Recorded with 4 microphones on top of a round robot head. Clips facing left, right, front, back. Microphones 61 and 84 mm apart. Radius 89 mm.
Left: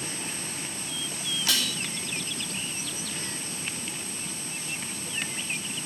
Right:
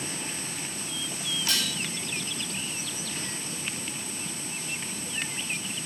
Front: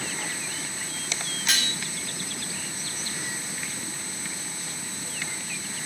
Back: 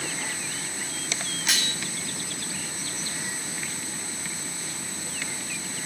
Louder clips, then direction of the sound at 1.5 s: Left 2 dB, front 1 dB; 90° left.